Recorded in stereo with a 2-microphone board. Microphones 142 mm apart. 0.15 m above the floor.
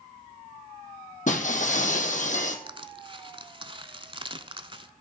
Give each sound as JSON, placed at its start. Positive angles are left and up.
{"t": 1.3, "sound": "breaking glass", "side_deg": 60, "distance_m": 1.3}
{"t": 2.7, "sound": "crushing", "side_deg": -35, "distance_m": 0.6}